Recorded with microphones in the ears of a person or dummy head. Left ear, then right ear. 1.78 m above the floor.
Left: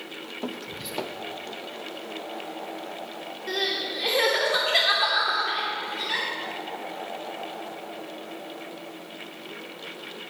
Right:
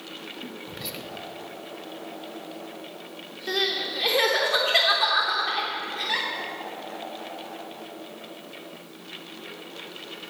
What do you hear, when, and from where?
0.7 s whispering: 10° right (ahead or behind), 0.8 m
3.5 s crying: centre (ahead or behind), 1.0 m